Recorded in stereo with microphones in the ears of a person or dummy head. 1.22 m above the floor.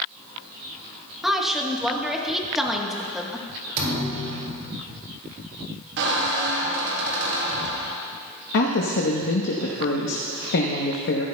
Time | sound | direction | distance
1.2 | a woman speaking | centre (ahead or behind) | 1.2 m
3.8 | a thud | 40° right (ahead or behind) | 2.5 m
6.0 | a squeak | 60° right (ahead or behind) | 1.3 m
8.5 | a woman speaking | 60° left (ahead or behind) | 0.8 m